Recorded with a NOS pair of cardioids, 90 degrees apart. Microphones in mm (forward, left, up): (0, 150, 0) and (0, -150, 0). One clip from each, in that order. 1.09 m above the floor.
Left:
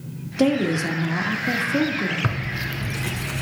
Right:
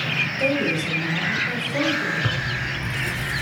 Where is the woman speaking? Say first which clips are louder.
Even; 60° left, 1.4 m.